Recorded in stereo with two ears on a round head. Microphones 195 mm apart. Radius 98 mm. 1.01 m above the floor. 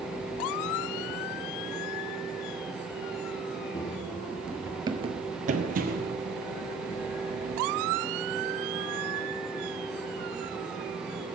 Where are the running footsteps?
25° left (ahead or behind), 1.1 m; by 6.1 s 45° right (ahead or behind), 1.6 m.